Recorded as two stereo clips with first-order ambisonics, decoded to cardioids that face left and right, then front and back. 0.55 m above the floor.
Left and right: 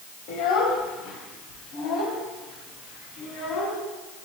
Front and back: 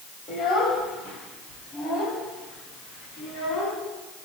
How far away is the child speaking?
About 2.5 m.